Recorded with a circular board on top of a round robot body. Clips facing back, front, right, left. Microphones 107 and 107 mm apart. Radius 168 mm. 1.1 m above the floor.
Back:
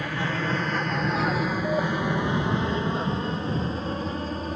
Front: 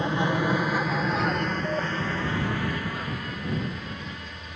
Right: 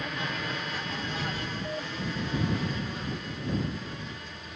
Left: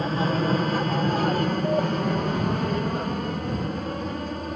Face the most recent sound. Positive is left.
turn(degrees=130)